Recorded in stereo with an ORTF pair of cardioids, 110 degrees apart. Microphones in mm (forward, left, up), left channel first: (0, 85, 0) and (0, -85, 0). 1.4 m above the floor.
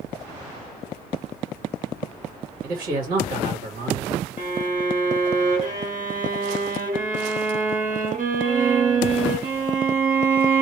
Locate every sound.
2.6 s a man speaking: 60° right, 1.5 m
4.4 s a violin: 55° right, 2 m